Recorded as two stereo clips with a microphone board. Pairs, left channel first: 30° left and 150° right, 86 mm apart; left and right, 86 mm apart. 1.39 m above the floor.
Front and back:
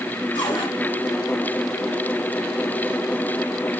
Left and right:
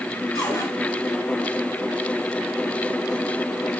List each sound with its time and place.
0.3 s a cupboard door: 45° left, 4 m